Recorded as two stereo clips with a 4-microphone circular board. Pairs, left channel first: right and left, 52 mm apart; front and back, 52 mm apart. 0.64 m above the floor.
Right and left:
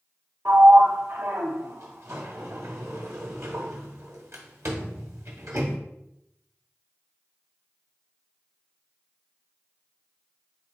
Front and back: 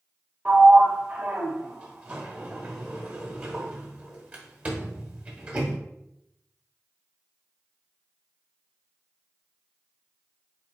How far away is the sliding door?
About 1.0 m.